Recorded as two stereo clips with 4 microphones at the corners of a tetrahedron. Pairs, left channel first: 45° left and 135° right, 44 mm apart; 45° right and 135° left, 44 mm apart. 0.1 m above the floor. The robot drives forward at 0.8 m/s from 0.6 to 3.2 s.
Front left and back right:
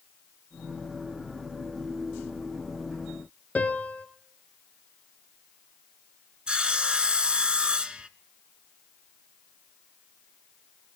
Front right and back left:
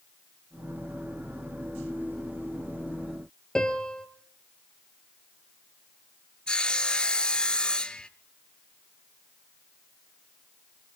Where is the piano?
15° left, 1.3 m.